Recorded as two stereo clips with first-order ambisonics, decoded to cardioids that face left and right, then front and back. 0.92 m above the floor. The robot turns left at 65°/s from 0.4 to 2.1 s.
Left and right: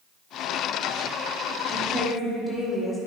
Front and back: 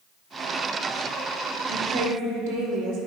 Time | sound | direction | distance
1.7 | a woman speaking | 165° right | 2 m